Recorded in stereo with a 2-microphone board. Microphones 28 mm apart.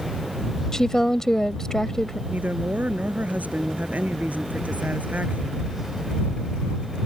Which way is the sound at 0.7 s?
20° left (ahead or behind).